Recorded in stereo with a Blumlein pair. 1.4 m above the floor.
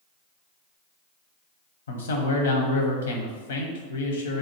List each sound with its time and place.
1.9 s a man speaking: 65° left, 0.8 m